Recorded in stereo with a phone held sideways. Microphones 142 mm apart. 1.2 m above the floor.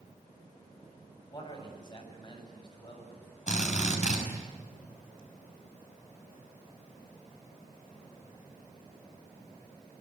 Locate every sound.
1.3 s a man speaking: 30° left (ahead or behind), 7 m
3.5 s a drill: 55° left (ahead or behind), 6 m